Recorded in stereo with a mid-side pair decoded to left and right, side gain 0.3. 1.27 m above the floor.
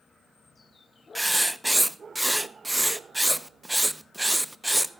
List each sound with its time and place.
1.1 s writing: 10° right, 0.7 m